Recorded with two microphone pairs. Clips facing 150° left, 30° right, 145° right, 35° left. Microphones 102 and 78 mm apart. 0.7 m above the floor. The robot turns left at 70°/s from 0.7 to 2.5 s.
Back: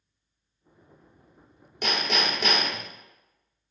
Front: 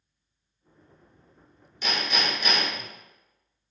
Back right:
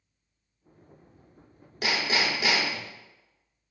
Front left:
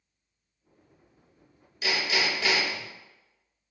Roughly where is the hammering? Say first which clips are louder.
Back 2 dB, back right 1 dB; behind.